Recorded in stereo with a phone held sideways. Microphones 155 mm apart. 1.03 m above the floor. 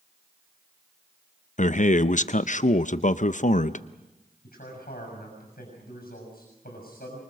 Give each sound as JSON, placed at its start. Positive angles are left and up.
{"t": 1.6, "sound": "a man speaking", "side_deg": 55, "distance_m": 0.6}
{"t": 4.4, "sound": "a man speaking", "side_deg": 85, "distance_m": 6.5}